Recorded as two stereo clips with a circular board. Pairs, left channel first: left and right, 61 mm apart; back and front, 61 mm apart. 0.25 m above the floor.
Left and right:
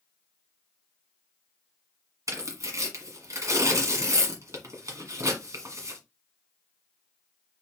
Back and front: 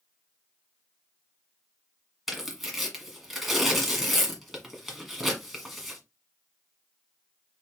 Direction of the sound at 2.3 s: 85° right.